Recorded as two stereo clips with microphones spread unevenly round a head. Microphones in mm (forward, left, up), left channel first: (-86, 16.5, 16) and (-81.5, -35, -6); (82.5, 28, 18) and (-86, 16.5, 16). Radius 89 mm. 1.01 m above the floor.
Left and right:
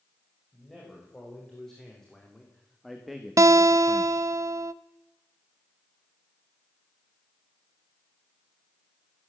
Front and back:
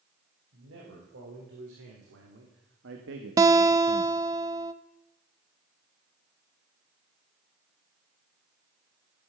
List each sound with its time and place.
0.5 s a man speaking: 175° left, 5.5 m; by 4.2 s 100° right, 1.0 m
3.4 s a guitar: 105° right, 0.6 m